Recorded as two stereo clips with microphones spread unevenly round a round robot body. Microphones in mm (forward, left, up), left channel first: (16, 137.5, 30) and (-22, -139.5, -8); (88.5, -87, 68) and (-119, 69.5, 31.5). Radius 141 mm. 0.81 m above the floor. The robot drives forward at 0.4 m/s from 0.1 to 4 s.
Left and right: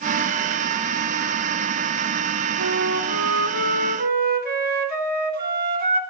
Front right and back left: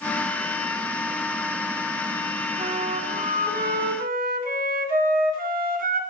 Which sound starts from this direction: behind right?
A flute, at 2.6 s.